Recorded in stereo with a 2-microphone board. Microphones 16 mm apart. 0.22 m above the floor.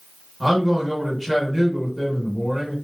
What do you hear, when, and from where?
0.4 s a man speaking: centre (ahead or behind), 1.1 m